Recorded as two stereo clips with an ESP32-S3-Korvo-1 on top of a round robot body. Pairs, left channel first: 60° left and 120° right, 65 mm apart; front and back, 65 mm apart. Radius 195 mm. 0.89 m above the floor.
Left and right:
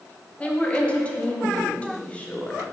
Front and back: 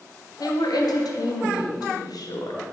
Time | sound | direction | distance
0.4 | a woman speaking | 10° right | 1.1 m